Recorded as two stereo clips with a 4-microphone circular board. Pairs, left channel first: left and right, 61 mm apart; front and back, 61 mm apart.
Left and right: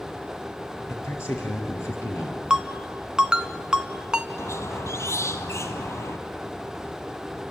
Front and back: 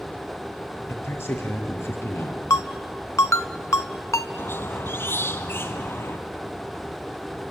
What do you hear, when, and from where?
0.9 s a man speaking: 50° left, 5.5 m
2.5 s a ringtone: 15° right, 1.0 m
4.4 s a squeak: 50° left, 1.4 m